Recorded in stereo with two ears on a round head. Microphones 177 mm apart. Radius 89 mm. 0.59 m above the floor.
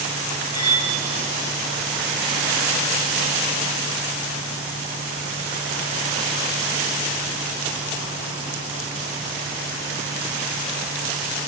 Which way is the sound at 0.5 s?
25° left (ahead or behind).